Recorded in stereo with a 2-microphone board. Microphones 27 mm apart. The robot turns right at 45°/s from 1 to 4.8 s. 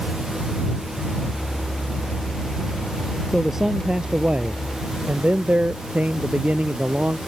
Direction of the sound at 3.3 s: Straight behind.